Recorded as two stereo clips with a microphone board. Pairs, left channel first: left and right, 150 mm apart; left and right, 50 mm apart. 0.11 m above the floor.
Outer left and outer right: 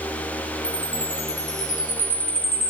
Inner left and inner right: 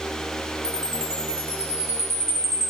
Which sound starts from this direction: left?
A chime, at 0.6 s.